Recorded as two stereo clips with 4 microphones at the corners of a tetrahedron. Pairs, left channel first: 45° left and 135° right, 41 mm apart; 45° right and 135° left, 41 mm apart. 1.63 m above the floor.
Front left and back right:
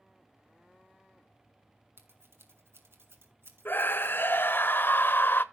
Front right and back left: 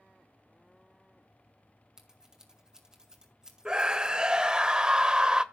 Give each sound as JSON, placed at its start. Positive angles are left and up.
{"t": 2.0, "sound": "scissors", "azimuth_deg": -150, "distance_m": 2.5}
{"t": 3.6, "sound": "a scream", "azimuth_deg": 65, "distance_m": 1.0}